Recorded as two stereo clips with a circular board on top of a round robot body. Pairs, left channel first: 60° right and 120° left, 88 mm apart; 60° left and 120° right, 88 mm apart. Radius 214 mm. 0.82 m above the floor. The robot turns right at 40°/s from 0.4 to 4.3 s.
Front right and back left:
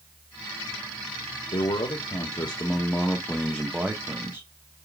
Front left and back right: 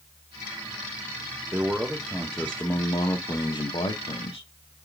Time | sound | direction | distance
1.5 | a man speaking | 55° right | 1.2 m